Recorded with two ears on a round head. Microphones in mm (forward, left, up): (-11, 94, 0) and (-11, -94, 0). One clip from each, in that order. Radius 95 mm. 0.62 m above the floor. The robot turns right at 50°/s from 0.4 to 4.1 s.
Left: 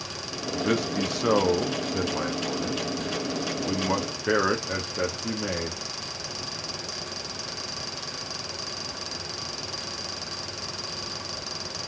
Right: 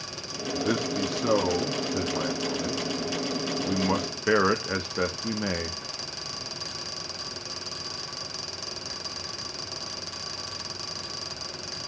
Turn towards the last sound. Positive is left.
turn(degrees=-20)  # may be behind; listen again after turning